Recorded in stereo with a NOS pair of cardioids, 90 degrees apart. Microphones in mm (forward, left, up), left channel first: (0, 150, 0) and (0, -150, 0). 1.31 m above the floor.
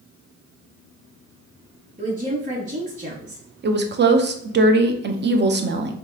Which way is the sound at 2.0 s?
25° right.